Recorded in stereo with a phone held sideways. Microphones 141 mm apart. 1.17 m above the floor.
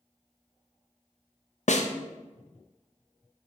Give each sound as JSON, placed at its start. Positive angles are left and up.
{"t": 1.7, "sound": "a snare drum", "side_deg": 65, "distance_m": 0.6}